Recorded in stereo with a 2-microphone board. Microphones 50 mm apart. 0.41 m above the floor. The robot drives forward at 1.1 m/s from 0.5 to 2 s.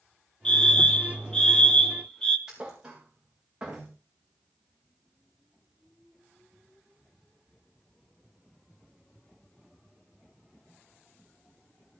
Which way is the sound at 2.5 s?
15° right (ahead or behind).